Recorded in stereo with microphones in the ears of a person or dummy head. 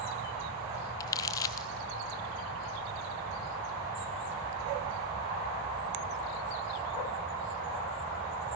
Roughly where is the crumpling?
Centre.